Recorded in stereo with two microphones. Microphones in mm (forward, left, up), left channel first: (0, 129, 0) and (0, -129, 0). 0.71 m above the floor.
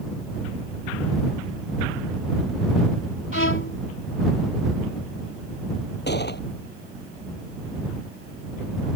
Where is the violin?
50° left (ahead or behind).